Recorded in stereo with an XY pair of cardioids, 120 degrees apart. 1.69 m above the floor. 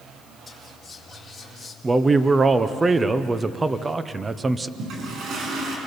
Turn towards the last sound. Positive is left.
turn(degrees=-60)